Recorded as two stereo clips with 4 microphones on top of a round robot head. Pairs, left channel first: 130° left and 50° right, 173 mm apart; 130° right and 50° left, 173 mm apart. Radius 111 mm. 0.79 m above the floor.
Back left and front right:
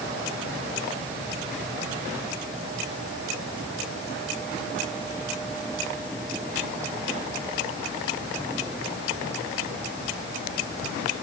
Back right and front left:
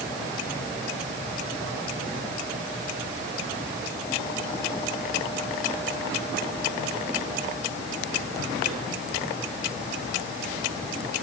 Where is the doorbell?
I don't hear a doorbell.